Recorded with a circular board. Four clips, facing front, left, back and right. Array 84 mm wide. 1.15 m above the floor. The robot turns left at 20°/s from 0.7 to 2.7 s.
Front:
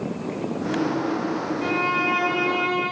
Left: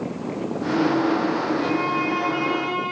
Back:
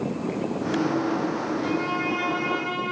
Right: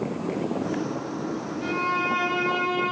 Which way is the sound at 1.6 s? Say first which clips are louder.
Left 3 dB, front 2 dB; straight ahead.